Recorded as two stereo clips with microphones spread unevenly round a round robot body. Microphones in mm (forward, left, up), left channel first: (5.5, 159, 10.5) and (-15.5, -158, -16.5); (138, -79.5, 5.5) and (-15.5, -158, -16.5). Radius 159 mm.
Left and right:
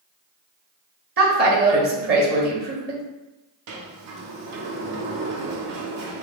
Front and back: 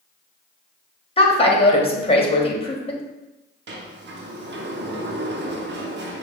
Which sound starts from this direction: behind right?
A sliding door, at 3.7 s.